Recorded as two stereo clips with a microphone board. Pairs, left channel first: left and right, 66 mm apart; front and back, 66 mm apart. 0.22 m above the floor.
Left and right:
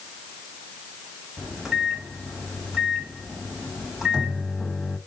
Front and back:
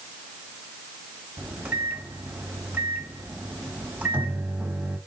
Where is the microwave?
160° right, 1.2 m.